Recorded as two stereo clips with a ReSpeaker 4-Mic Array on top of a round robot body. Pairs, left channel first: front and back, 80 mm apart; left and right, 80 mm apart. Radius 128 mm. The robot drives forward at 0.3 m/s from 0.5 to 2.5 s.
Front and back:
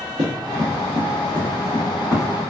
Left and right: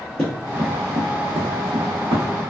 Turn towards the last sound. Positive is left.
turn(degrees=-115)